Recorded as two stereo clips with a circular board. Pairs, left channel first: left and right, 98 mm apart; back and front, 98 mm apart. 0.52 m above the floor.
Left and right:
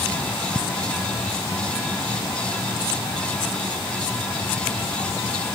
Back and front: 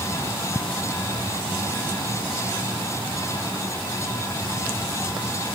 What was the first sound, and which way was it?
Only background noise.